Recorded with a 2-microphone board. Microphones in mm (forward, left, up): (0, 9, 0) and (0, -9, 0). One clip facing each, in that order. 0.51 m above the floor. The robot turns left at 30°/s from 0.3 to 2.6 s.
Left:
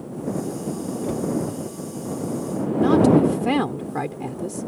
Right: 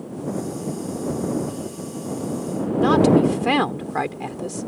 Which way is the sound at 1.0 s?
65° left (ahead or behind).